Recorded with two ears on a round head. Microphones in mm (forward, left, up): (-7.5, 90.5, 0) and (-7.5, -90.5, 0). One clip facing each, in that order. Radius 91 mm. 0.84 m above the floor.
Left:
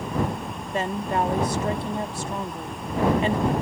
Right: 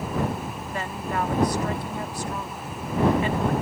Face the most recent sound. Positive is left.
turn(degrees=25)  # may be behind; listen again after turning